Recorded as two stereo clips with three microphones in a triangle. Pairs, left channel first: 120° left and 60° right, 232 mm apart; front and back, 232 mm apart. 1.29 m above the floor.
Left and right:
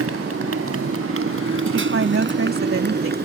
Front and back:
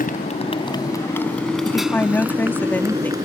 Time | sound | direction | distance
0.0 | a motorcycle | 50° right | ?
1.6 | a woman speaking | 80° right | ?